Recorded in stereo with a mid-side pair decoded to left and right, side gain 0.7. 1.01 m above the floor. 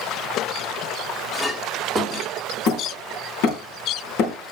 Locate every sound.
1.3 s a clink: 20° left, 1.7 m
2.7 s hammering: 65° left, 3 m